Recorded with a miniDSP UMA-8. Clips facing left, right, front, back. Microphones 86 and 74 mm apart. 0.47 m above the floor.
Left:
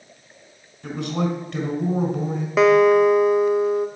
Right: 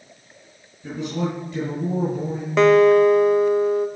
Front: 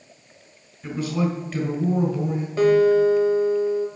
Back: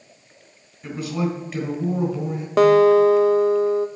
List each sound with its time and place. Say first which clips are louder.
0.8 s a man speaking: left 1 dB, front 1 dB; 100° left, 3.5 m
2.6 s a guitar: right 1 dB, back 3 dB; 175° left, 0.5 m